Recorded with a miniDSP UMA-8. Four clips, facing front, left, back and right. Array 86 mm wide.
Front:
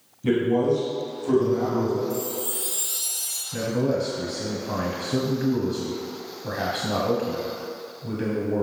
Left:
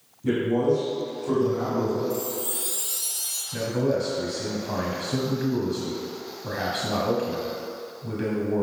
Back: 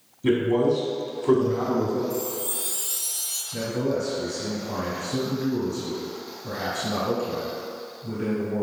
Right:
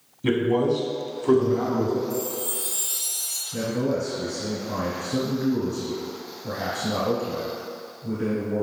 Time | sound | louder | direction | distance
0.2 | a man speaking | right 1 dB, even | 110° right | 1.8 m
2.1 | a chime | even, front 1 dB | 30° left | 2 m
3.5 | a man speaking | left 1 dB, front 2 dB | 45° left | 1.3 m